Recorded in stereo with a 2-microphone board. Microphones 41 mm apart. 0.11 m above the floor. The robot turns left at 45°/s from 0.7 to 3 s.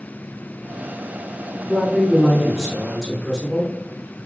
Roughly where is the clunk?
I don't hear a clunk.